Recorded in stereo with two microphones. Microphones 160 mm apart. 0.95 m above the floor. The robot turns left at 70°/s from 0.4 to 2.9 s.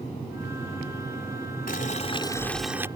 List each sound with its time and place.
1.7 s boiling: 70° left; by 2.9 s 15° right